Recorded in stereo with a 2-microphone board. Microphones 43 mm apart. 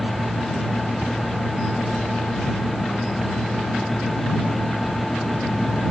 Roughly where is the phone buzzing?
No phone buzzing in this recording.